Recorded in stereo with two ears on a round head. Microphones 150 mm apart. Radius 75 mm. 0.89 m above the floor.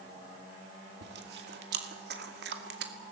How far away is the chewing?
About 2.5 m.